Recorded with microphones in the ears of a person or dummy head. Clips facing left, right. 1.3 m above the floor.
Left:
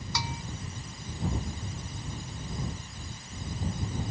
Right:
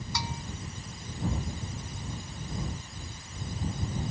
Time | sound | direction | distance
0.1 | a bell | 65° left (ahead or behind) | ?